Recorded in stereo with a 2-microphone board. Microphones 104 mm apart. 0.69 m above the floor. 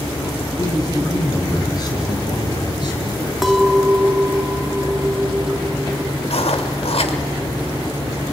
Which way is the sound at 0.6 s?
35° left (ahead or behind).